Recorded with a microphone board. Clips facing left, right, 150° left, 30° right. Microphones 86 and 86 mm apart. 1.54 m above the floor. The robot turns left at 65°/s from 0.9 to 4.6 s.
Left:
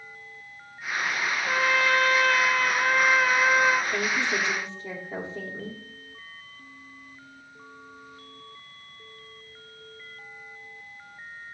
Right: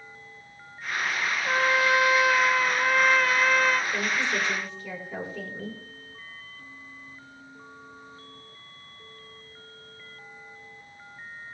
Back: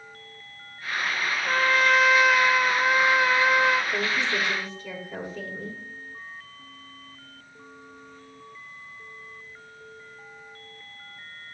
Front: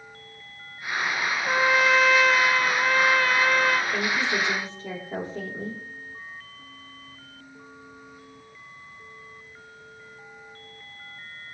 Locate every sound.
1.4 s a trumpet: 85° right, 0.9 m; by 3.8 s 120° left, 0.9 m
3.9 s a woman speaking: 70° left, 4.5 m; by 5.8 s 25° left, 4.5 m